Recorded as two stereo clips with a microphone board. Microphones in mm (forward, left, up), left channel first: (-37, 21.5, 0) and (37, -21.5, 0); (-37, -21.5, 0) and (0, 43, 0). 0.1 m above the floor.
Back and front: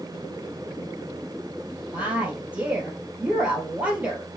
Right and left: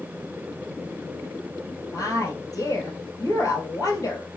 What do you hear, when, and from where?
1.9 s a woman speaking: 95° right, 2 m